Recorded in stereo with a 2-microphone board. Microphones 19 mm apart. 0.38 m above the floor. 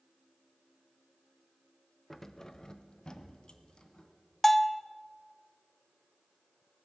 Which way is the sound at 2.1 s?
10° left (ahead or behind).